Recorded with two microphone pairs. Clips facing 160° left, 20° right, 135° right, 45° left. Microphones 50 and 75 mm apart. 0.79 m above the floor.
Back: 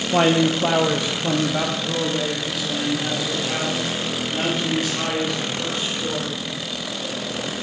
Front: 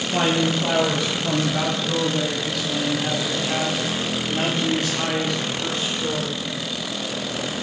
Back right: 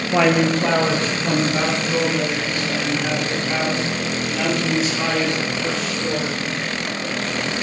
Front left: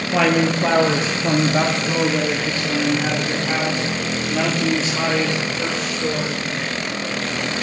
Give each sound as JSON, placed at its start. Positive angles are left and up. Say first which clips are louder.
{"t": 0.1, "sound": "a man speaking", "louder": "back 4 dB, back right 1 dB", "azimuth_deg": 155, "distance_m": 0.6}